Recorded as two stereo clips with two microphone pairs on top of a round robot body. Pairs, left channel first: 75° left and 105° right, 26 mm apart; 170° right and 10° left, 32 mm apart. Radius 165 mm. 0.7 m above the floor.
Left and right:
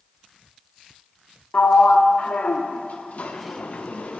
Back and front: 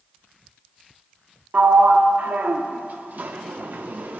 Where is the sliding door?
45° left, 0.5 m.